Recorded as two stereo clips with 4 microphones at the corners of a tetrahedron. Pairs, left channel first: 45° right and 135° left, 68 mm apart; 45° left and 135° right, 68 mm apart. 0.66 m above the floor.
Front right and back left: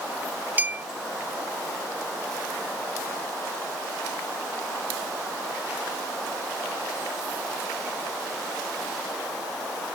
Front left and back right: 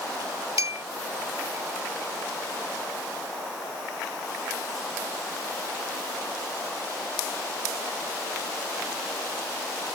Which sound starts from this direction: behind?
A clink, at 0.6 s.